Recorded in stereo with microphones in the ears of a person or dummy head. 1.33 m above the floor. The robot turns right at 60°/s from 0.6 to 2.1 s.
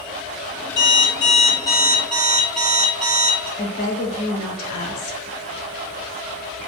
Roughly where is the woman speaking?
Left.